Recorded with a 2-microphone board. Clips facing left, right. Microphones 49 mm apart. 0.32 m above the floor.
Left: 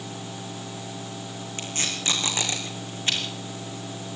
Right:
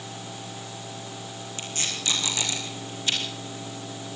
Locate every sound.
1.6 s tape being pulled: 35° left (ahead or behind), 5 m